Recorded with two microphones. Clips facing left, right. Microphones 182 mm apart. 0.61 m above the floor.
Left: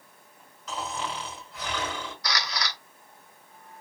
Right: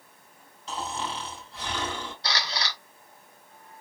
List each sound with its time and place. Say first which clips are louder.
0.7 s snoring: even; 30° right (ahead or behind), 3.5 m
2.2 s a camera shutter: even; 30° right (ahead or behind), 1.2 m